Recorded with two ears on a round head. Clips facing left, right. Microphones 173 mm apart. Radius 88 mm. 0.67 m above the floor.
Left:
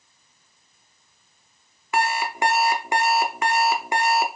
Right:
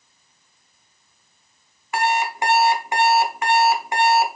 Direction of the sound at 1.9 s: 60° left (ahead or behind).